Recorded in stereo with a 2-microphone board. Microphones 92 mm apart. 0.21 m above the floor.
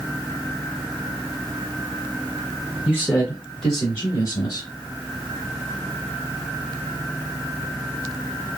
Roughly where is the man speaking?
Centre.